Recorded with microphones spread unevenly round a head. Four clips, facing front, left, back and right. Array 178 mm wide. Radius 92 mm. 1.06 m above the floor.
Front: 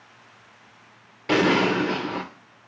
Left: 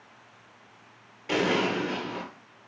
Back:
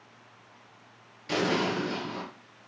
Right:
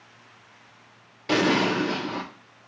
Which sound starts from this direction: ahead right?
An explosion, at 1.3 s.